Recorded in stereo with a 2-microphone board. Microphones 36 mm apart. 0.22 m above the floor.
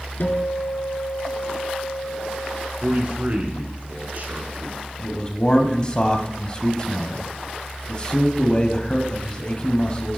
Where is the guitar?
70° left (ahead or behind), 1.1 m.